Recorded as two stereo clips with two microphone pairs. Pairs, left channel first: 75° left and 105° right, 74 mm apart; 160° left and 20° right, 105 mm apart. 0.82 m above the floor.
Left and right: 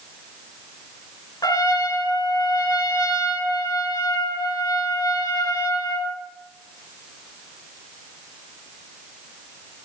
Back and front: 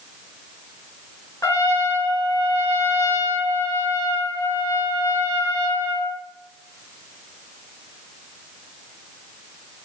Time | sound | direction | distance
1.4 | a trumpet | 95° left | 3.5 m